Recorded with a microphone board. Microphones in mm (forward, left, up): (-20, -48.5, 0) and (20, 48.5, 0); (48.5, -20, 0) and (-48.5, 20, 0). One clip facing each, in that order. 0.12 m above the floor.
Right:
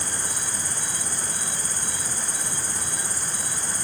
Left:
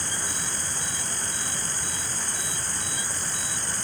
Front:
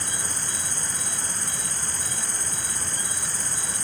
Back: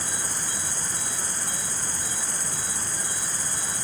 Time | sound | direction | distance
0.0 | an insect | 120° right | 8.5 m